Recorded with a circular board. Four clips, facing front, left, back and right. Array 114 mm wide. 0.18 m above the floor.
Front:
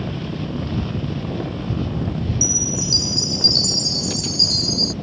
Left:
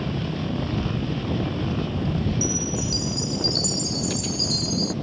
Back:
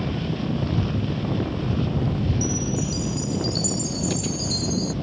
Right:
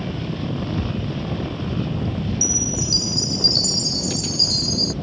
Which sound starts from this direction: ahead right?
A chime, at 2.4 s.